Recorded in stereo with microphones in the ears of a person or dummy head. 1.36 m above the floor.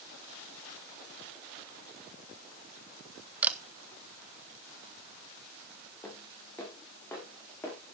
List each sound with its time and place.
3.4 s a camera shutter: 10° right (ahead or behind), 1.0 m
6.0 s footsteps: 10° left (ahead or behind), 5 m